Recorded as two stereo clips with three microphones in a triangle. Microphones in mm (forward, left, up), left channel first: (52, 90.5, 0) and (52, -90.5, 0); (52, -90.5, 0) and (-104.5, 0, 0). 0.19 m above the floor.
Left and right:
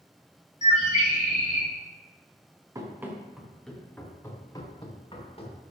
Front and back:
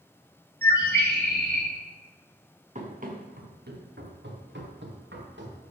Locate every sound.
0.6 s a bird: 135° left, 3 m
2.8 s running footsteps: 160° right, 3 m; by 5.6 s 145° left, 4.5 m